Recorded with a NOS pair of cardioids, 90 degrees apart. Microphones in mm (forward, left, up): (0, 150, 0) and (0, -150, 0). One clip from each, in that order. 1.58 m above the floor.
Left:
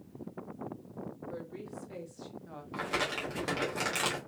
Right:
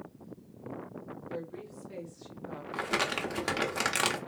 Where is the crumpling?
30° right, 1.1 m.